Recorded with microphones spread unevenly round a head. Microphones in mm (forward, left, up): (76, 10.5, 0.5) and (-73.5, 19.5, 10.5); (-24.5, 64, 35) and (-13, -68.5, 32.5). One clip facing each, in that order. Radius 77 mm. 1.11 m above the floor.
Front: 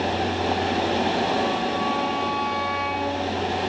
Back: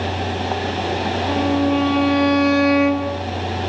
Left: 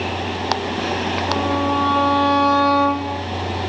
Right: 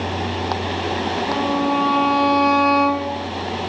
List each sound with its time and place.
1.3 s a violin: 170° right, 4.5 m